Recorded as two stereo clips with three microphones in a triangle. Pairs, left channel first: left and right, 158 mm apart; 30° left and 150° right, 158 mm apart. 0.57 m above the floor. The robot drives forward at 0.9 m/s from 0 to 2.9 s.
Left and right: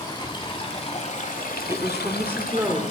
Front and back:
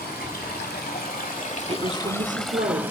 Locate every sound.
0.0 s running water: 25° left, 2.0 m; by 2.9 s 135° left, 1.2 m
1.7 s a woman speaking: 145° right, 0.8 m; by 2.8 s 170° right, 1.6 m